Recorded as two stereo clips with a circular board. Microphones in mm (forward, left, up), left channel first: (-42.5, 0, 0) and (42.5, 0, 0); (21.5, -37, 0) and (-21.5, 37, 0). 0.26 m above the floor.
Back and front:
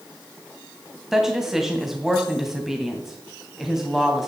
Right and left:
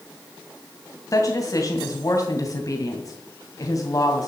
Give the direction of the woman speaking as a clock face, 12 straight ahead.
3 o'clock.